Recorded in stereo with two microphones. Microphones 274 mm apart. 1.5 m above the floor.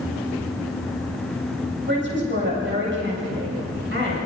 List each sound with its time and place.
1.9 s a man speaking: 40° right (ahead or behind), 8.5 m